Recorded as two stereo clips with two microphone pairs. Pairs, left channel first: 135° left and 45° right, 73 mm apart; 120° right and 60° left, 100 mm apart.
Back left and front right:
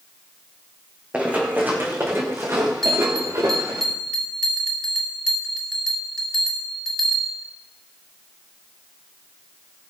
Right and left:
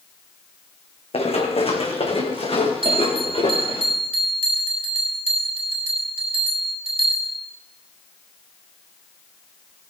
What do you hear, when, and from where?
1.1 s running footsteps: 115° right, 3 m; by 3.8 s 90° right, 5 m
2.8 s a bell: 50° left, 2.5 m